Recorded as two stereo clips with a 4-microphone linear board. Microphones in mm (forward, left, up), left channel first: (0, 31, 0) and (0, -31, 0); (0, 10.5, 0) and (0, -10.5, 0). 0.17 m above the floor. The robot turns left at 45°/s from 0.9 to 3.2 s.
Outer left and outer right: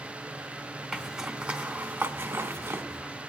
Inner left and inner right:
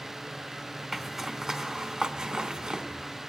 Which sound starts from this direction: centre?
A zipper, at 0.9 s.